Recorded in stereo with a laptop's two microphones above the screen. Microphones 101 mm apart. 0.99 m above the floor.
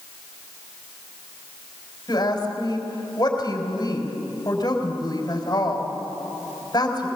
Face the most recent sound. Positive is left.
turn(degrees=40)  # may be behind; listen again after turning